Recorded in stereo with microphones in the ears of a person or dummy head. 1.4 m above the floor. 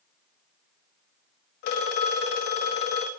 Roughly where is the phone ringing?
Left.